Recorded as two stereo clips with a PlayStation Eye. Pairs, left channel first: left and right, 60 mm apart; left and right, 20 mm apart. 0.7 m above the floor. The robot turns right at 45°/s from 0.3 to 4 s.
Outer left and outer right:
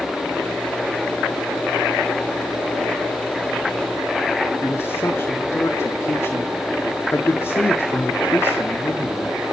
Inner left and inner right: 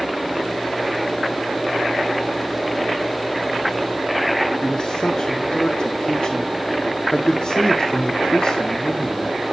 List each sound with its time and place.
4.6 s a man speaking: 50° left (ahead or behind), 1.7 m